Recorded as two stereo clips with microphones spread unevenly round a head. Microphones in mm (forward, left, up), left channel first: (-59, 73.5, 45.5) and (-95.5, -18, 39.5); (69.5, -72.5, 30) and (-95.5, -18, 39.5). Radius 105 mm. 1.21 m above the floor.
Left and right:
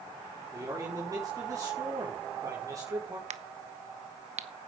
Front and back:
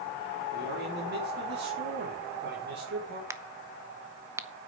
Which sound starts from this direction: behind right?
A crack, at 3.3 s.